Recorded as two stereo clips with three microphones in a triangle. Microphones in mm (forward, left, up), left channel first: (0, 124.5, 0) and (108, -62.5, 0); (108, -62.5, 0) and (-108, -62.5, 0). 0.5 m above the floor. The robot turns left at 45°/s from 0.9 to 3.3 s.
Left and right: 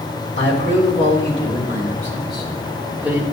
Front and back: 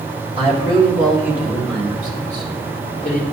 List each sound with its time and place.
0.4 s a man speaking: 120° left, 2.5 m; by 3.2 s 15° left, 2.5 m